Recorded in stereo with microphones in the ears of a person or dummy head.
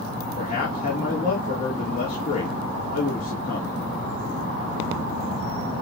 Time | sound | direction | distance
0.4 | a man speaking | 40° left (ahead or behind) | 3 m